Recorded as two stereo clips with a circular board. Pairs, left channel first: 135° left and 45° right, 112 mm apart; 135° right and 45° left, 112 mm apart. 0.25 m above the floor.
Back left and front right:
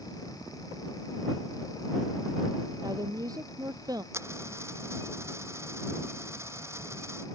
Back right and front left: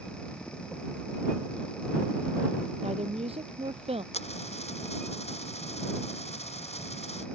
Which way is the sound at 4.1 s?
115° right.